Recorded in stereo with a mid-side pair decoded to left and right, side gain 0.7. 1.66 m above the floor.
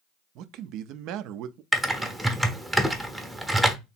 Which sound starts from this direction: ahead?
Typing on a keyboard, at 1.7 s.